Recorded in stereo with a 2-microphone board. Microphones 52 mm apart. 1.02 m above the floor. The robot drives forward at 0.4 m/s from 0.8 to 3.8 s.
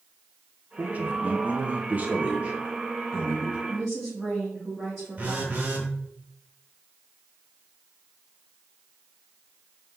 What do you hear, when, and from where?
0.8 s a man speaking: 30° right (ahead or behind), 0.6 m; by 3.6 s 15° right (ahead or behind), 0.9 m
3.7 s a woman speaking: 10° right (ahead or behind), 1.4 m; by 5.6 s 5° right (ahead or behind), 1.4 m
5.2 s a phone buzzing: 30° right (ahead or behind), 0.9 m